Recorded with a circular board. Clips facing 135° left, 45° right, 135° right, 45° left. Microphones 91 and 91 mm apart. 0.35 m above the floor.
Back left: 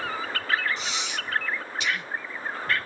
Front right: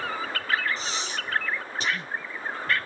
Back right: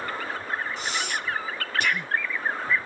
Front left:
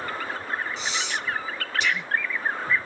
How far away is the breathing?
About 0.8 m.